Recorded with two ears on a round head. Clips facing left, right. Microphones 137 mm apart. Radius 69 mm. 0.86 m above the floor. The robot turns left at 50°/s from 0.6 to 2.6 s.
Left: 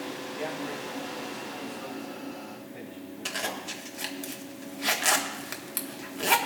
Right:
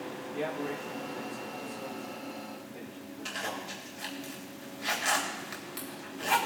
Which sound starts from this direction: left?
A zipper, at 3.2 s.